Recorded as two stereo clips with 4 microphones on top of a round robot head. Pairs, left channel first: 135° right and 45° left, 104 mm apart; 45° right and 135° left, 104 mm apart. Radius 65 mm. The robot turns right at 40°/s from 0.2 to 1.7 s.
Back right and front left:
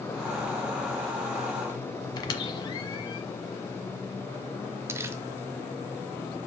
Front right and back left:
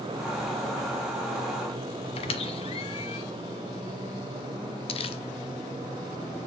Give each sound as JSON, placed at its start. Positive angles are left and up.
{"t": 2.2, "sound": "a squeak", "azimuth_deg": -80, "distance_m": 1.1}
{"t": 4.9, "sound": "crumpling", "azimuth_deg": -20, "distance_m": 0.7}